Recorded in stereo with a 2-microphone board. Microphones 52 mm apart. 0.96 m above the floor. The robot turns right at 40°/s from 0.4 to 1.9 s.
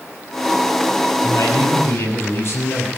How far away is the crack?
No crack in this recording.